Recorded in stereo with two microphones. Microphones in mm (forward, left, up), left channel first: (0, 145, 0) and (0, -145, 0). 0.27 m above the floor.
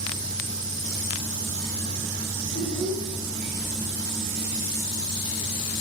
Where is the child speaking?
65° left (ahead or behind), 6.5 m.